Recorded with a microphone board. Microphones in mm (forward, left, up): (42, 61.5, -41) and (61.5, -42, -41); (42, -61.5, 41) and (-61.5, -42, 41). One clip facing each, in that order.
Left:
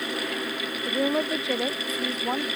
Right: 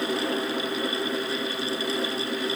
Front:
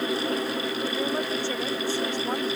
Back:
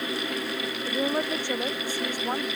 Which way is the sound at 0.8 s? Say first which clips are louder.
Left 3 dB, back 4 dB; 100° left.